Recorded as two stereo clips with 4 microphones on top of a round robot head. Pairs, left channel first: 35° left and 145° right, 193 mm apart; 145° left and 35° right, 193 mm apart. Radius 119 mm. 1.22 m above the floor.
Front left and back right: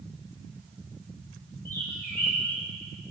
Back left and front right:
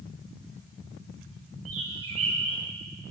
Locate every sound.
1.6 s a bird: 40° right, 10 m